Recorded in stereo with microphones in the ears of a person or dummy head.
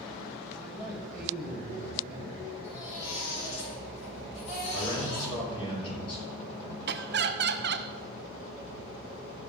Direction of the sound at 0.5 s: Centre (ahead or behind).